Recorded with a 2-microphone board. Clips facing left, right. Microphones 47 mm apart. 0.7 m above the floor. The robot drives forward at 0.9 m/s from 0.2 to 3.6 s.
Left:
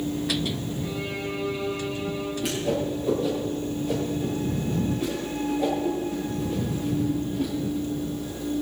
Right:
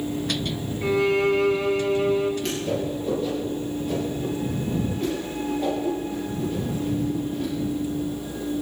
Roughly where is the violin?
Right.